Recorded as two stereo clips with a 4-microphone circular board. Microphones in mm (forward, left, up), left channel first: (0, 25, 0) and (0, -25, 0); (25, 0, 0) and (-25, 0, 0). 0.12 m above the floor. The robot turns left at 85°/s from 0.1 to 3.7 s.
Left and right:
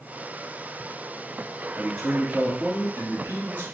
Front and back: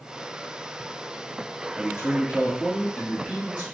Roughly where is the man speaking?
Ahead left.